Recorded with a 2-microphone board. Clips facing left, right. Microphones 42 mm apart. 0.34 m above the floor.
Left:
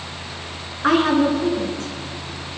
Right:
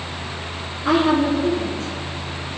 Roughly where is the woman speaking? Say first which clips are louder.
Left 1 dB; left.